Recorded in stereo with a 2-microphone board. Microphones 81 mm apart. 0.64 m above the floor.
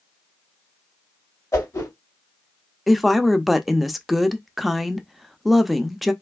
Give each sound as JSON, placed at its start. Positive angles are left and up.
{"t": 1.5, "sound": "a whoosh", "side_deg": 35, "distance_m": 2.0}
{"t": 2.9, "sound": "a woman speaking", "side_deg": 0, "distance_m": 0.5}